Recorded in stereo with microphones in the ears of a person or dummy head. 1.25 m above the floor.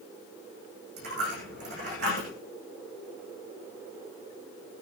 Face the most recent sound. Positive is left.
turn(degrees=-55)  # may be behind; listen again after turning